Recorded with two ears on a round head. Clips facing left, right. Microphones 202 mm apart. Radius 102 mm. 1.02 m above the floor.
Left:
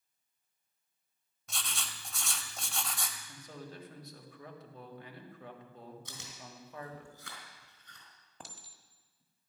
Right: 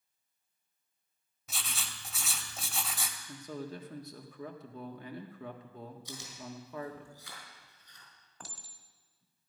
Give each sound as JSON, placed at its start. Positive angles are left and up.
{"t": 1.5, "sound": "writing", "side_deg": -5, "distance_m": 1.1}
{"t": 3.3, "sound": "a man speaking", "side_deg": -70, "distance_m": 1.7}
{"t": 6.0, "sound": "chewing", "side_deg": 55, "distance_m": 3.5}
{"t": 8.4, "sound": "a clink", "side_deg": 20, "distance_m": 1.4}